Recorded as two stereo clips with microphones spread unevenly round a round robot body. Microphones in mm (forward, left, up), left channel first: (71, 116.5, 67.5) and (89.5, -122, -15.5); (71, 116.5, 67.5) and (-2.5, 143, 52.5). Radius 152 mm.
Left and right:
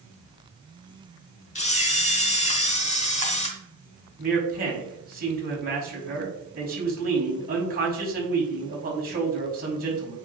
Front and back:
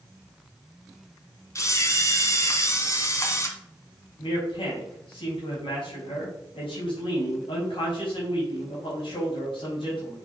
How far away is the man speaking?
About 4 m.